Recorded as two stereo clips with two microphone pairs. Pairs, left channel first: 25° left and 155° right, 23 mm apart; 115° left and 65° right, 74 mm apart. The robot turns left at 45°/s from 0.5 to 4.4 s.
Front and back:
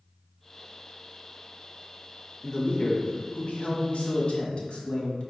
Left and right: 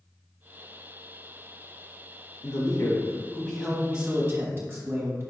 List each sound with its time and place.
2.4 s a man speaking: 85° left, 1.1 m; by 5.3 s 5° right, 1.1 m